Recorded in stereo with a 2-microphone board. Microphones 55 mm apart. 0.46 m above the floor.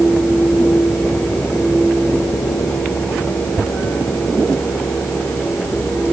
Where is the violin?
No violin in this recording.